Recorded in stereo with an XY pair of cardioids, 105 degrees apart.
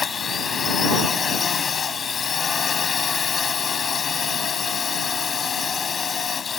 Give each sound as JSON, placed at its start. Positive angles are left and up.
{"t": 0.0, "sound": "a drone", "azimuth_deg": 40}